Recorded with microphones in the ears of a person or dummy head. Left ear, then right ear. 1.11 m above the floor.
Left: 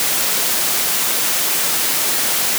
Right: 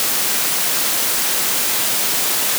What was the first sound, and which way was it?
Only background noise.